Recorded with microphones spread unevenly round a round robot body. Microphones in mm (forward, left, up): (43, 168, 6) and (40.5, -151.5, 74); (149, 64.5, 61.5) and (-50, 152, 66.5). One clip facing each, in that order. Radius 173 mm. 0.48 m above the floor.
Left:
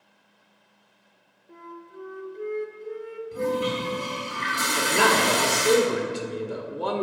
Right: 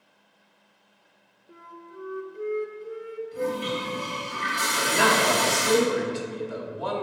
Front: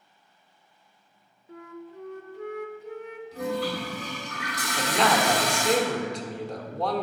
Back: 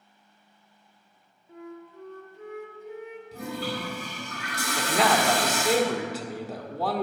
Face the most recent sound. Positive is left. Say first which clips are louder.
# left 1 dB, even
turn(degrees=70)